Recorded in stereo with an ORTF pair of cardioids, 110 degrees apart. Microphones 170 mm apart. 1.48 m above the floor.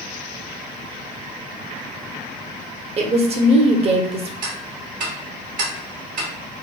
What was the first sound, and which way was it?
A woman speaking, 35° right.